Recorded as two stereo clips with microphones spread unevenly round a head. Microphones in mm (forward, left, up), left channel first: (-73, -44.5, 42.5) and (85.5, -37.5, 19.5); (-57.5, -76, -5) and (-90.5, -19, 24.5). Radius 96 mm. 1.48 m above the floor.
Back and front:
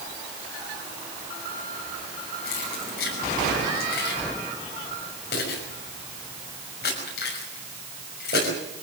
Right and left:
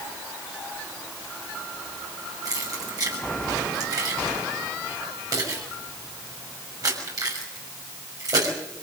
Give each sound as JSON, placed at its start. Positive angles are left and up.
{"t": 2.5, "sound": "keys jangling", "azimuth_deg": 140, "distance_m": 6.5}